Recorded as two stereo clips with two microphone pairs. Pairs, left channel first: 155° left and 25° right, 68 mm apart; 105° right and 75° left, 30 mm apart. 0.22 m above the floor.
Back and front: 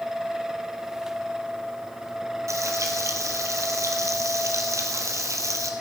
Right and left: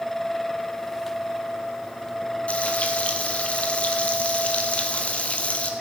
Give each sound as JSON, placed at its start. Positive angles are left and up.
{"t": 2.5, "sound": "frying", "azimuth_deg": -60, "distance_m": 1.9}